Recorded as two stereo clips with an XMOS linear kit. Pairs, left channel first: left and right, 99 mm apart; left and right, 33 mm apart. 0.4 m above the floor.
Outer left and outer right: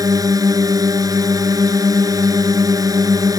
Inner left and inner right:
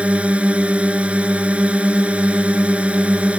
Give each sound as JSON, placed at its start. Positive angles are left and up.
{"t": 0.0, "sound": "a drone", "side_deg": -40}